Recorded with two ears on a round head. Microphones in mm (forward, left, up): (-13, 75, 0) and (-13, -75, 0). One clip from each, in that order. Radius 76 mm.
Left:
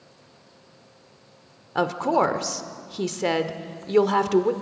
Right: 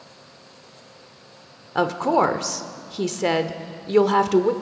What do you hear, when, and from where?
1.8 s a woman speaking: 5° left (ahead or behind), 0.9 m